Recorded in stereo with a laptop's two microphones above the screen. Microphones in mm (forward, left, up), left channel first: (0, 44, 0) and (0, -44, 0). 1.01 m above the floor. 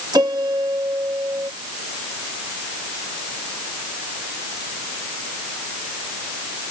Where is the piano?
50° right (ahead or behind).